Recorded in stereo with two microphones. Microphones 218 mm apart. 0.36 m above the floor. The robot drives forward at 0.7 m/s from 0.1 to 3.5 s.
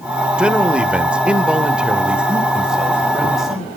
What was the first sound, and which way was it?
A man speaking, 5° right (ahead or behind).